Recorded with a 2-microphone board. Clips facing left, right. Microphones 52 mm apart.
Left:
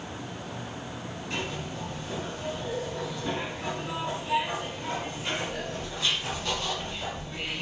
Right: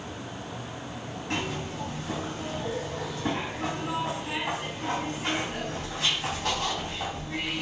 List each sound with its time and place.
1.3 s a zipper: 70° right (ahead or behind), 3.5 m